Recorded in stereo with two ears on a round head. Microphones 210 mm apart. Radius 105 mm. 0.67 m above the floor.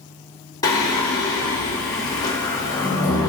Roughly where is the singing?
Centre.